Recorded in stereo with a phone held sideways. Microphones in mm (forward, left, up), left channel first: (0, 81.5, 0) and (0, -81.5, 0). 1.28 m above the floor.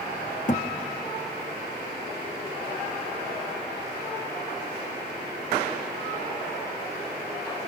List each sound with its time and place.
0.5 s a thud: 45° left (ahead or behind), 0.9 m